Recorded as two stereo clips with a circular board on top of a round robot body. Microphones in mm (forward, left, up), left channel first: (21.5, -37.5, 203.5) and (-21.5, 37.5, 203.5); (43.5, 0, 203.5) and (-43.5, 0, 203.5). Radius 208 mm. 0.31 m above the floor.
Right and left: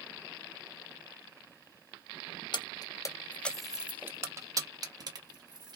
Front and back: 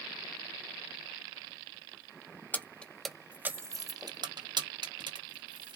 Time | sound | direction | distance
2.5 | keys jangling | 65° right | 0.8 m